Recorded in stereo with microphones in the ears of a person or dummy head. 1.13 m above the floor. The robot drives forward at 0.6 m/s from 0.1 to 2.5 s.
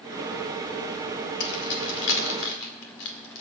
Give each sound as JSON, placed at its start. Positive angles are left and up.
{"t": 1.4, "sound": "keys jangling", "side_deg": 75, "distance_m": 2.5}